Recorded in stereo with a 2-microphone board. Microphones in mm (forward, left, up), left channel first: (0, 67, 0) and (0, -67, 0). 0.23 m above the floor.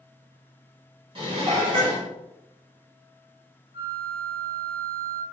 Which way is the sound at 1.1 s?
40° right (ahead or behind).